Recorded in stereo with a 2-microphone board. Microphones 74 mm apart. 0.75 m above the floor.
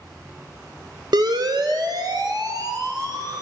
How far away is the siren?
About 2 m.